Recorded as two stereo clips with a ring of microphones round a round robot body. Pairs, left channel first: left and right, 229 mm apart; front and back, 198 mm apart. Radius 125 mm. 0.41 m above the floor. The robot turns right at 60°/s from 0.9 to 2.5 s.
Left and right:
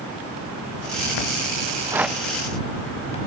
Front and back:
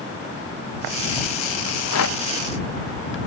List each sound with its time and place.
1.7 s a rattle: 25° right; by 3.2 s 25° left